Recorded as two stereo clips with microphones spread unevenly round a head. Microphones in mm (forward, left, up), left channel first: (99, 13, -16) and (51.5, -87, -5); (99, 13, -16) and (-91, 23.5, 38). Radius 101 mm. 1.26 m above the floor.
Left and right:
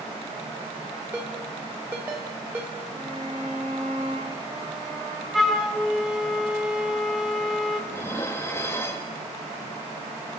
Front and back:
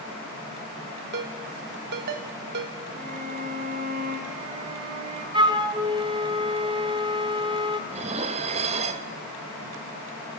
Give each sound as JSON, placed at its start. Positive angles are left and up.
{"t": 1.1, "sound": "a ringtone", "azimuth_deg": 170, "distance_m": 1.4}
{"t": 2.9, "sound": "a violin", "azimuth_deg": 175, "distance_m": 1.8}
{"t": 5.3, "sound": "a flute", "azimuth_deg": 165, "distance_m": 1.0}
{"t": 7.9, "sound": "dishes clattering", "azimuth_deg": 140, "distance_m": 0.8}